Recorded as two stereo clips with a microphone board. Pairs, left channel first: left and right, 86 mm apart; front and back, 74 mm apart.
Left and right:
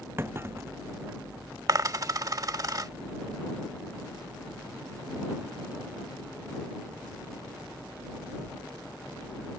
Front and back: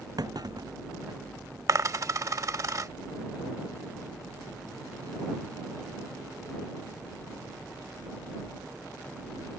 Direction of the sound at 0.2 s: 150° right.